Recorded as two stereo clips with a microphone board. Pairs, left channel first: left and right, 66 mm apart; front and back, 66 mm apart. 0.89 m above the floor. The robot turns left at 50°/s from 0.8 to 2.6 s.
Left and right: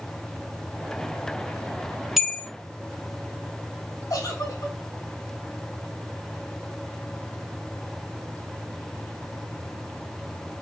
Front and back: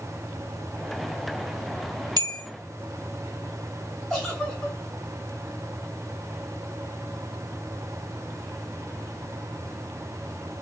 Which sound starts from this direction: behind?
A bell, at 2.2 s.